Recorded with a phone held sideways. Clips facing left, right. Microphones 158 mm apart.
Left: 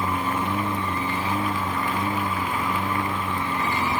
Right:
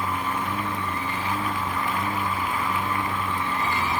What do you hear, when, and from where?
0.0 s a lawn mower: 25° left (ahead or behind); by 4.0 s 20° left (ahead or behind)